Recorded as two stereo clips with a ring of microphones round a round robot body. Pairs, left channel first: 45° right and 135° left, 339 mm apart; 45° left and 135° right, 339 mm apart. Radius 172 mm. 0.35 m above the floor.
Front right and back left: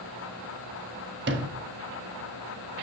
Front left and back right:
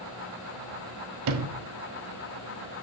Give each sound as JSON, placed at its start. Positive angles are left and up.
{"t": 1.3, "sound": "a sliding door", "azimuth_deg": -170, "distance_m": 1.5}